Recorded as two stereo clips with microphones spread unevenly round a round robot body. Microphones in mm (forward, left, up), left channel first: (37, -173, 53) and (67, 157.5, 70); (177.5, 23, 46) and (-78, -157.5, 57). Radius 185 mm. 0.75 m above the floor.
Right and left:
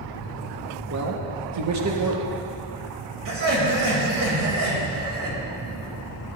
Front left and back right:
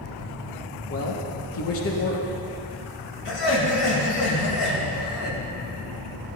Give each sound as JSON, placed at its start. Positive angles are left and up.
{"t": 0.9, "sound": "a man speaking", "azimuth_deg": 60, "distance_m": 1.4}
{"t": 3.2, "sound": "laughter", "azimuth_deg": 55, "distance_m": 3.5}